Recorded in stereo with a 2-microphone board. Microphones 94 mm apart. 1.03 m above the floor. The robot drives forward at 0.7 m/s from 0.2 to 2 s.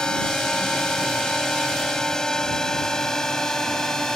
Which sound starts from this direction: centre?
A drone, at 0.0 s.